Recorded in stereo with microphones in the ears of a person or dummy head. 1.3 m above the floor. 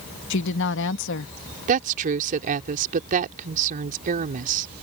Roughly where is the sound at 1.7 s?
Right.